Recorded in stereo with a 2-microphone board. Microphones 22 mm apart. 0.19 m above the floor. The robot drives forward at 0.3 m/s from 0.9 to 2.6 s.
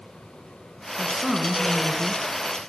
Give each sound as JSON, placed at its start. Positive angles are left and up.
{"t": 1.0, "sound": "a woman speaking", "side_deg": -30, "distance_m": 2.5}